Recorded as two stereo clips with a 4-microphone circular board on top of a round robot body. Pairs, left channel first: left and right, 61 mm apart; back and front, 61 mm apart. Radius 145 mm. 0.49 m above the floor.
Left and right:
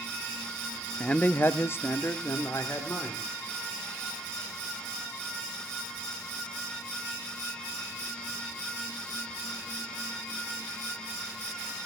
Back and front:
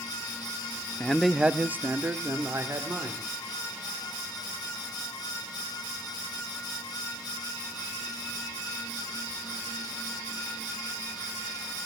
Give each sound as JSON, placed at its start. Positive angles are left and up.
{"t": 1.0, "sound": "a man speaking", "azimuth_deg": 140, "distance_m": 0.7}